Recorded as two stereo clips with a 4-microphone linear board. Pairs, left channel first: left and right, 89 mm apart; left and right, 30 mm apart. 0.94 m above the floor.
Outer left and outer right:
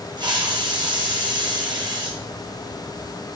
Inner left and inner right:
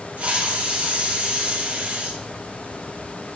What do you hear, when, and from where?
0.2 s a hiss: 55° right (ahead or behind), 0.8 m